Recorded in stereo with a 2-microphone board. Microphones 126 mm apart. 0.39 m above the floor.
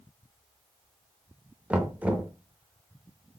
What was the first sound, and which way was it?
Knocking, 10° right (ahead or behind).